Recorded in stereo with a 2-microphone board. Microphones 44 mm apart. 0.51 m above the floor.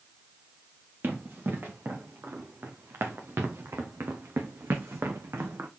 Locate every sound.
1.0 s running footsteps: 55° right (ahead or behind), 3.5 m; by 5.7 s 70° right (ahead or behind), 1.6 m